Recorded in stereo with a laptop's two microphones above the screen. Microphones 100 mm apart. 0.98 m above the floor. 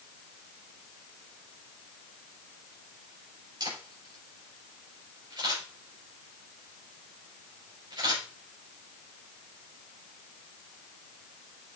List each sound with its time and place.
3.6 s a camera shutter: 50° right (ahead or behind), 5 m